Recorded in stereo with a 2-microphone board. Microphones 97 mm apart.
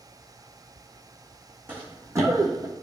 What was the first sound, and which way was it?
Running footsteps, 15° right (ahead or behind).